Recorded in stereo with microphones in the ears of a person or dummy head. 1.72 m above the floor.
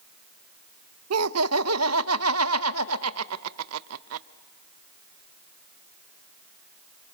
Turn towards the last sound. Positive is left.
turn(degrees=-80)